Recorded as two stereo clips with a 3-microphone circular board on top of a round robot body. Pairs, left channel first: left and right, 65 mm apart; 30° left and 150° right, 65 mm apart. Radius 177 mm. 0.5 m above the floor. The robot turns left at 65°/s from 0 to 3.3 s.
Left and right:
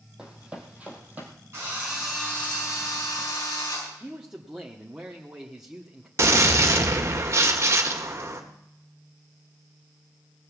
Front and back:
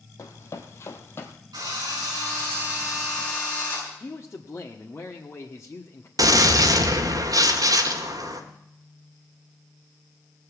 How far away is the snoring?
I don't hear snoring.